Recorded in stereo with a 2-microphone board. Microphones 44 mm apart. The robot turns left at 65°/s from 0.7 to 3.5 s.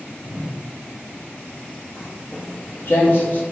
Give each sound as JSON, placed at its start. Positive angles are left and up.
{"t": 0.2, "sound": "a whoosh", "side_deg": -65, "distance_m": 1.3}
{"t": 2.0, "sound": "footsteps", "side_deg": -10, "distance_m": 1.3}